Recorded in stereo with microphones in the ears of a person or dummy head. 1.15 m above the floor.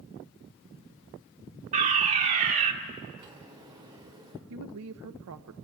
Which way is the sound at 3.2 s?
20° right (ahead or behind).